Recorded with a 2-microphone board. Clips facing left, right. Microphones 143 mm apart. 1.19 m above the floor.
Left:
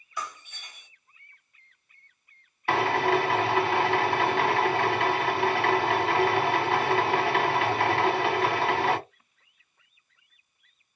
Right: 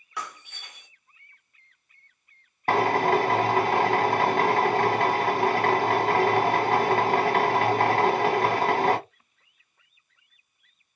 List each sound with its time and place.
0.2 s breaking glass: 65° right (ahead or behind), 1.6 m
2.7 s a drill: 40° right (ahead or behind), 1.1 m